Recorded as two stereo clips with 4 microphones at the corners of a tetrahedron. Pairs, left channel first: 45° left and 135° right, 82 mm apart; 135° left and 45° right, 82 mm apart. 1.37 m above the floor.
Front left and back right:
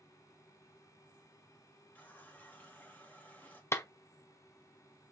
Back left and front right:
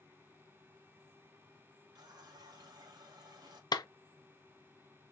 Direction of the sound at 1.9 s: 20° right.